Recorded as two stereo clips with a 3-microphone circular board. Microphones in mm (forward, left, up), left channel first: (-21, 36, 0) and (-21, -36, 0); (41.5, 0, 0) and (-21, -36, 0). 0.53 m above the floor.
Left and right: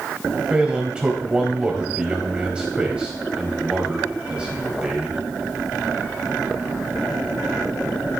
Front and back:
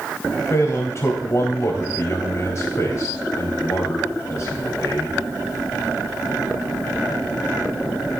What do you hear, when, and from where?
0.5 s a man speaking: 15° right, 3.5 m